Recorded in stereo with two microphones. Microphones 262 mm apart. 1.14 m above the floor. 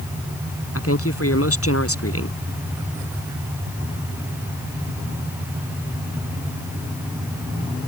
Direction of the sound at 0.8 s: 60° left (ahead or behind).